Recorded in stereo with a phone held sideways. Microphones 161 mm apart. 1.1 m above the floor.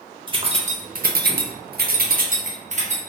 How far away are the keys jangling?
About 0.7 m.